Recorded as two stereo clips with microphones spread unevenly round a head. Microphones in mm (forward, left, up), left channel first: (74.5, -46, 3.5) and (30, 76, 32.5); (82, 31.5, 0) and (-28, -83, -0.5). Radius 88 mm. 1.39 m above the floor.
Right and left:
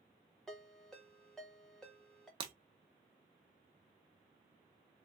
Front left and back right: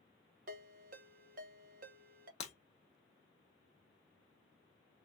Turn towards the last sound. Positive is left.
turn(degrees=90)